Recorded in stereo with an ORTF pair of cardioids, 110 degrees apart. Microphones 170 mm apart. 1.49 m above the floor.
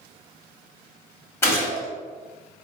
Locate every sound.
1.4 s a gunshot: 15° left, 1.2 m